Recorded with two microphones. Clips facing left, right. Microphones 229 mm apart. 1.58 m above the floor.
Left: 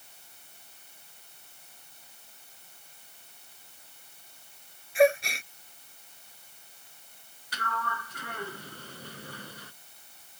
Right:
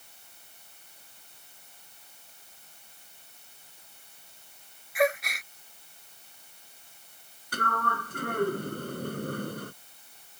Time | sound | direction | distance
5.0 | a gasp | 30° left (ahead or behind) | ?
7.5 | a sliding door | 50° right (ahead or behind) | ?